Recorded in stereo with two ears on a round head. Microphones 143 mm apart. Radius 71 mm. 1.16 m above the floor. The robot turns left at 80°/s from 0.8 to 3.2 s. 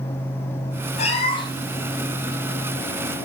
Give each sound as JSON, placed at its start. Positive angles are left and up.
{"t": 1.0, "sound": "a cat meowing", "azimuth_deg": 80, "distance_m": 1.4}